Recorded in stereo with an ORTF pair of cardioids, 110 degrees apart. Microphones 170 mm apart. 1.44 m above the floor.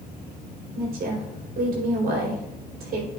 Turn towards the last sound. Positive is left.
turn(degrees=-65)